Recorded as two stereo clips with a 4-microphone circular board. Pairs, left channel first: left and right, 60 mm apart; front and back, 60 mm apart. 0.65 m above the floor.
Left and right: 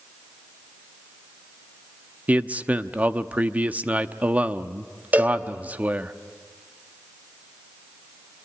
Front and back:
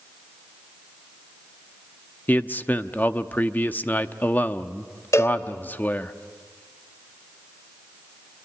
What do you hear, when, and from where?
2.3 s a man speaking: 40° right, 0.8 m
5.1 s a cowbell: 30° right, 1.9 m